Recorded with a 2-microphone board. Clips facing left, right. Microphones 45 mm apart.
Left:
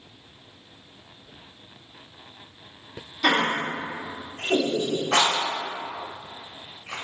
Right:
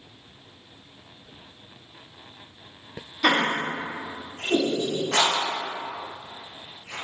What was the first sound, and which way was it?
Laughter, 20° right (ahead or behind).